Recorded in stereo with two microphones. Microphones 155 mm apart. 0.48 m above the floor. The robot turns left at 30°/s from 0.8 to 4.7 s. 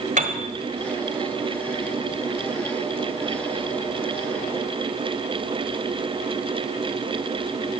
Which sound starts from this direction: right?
A piano, at 0.2 s.